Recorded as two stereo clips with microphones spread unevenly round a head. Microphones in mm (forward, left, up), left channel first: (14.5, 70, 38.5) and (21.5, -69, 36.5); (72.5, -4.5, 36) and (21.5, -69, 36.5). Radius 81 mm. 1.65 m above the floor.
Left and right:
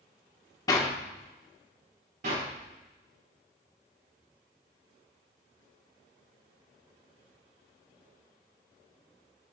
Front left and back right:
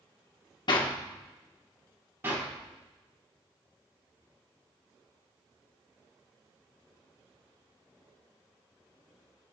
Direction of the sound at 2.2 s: 65° right.